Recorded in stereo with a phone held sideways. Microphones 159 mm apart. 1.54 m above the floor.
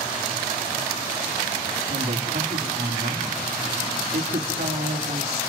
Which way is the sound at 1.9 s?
85° right.